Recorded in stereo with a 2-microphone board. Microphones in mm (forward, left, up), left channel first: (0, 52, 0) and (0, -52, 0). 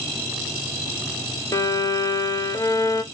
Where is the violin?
35° left (ahead or behind), 0.6 m.